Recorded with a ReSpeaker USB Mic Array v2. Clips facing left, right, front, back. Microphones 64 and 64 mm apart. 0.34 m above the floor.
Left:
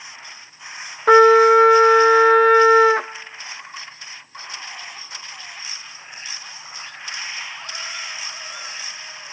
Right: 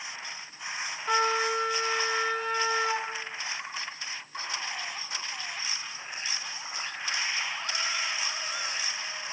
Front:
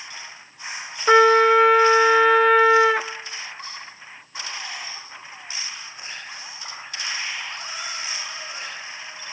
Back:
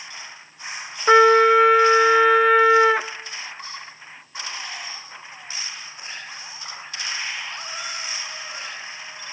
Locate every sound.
1.1 s a trumpet: 90° left, 0.7 m